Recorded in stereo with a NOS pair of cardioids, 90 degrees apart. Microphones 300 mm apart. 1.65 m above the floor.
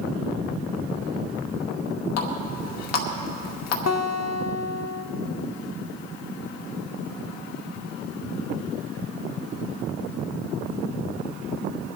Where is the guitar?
55° left, 0.8 m.